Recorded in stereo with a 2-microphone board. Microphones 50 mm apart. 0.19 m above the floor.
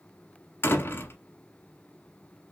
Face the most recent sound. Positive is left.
turn(degrees=50)  # may be behind; listen again after turning